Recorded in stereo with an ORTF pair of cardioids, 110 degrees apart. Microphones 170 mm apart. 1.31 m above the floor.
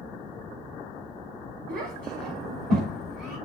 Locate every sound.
1.7 s a child speaking: 70° right, 3 m; by 3.4 s 65° right, 4.5 m